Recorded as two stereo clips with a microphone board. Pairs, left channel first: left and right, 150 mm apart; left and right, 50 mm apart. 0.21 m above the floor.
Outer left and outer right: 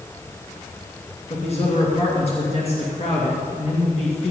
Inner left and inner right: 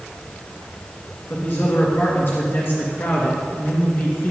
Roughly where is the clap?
I don't hear a clap.